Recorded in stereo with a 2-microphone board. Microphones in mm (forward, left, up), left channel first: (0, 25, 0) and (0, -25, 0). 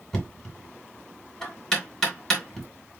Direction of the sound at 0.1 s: 15° left (ahead or behind).